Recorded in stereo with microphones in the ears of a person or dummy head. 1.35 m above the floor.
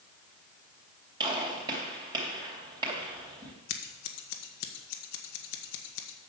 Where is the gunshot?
25° right (ahead or behind), 3 m.